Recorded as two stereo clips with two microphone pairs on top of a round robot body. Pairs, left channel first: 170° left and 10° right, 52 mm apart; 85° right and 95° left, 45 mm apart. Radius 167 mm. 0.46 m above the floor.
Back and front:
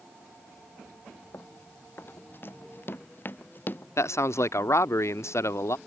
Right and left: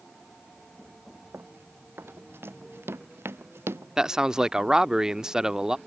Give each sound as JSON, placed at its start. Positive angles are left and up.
{"t": 1.3, "sound": "running footsteps", "azimuth_deg": 130}
{"t": 4.0, "sound": "a man speaking", "azimuth_deg": 170}